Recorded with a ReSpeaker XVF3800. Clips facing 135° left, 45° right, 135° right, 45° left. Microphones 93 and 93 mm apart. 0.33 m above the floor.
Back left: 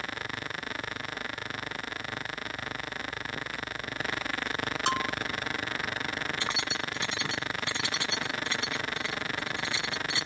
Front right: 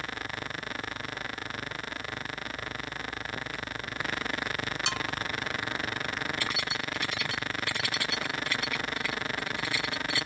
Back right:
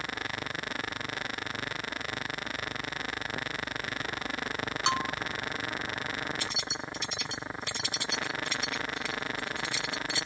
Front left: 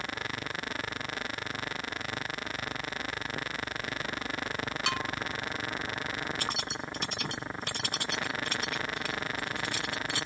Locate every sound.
4.9 s a bell: 170° left
6.4 s keys jangling: 70° left